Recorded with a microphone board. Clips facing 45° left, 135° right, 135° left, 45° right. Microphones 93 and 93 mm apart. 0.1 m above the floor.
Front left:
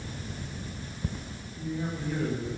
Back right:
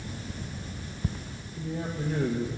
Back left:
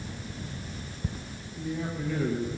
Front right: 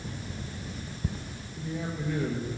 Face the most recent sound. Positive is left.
turn(degrees=-120)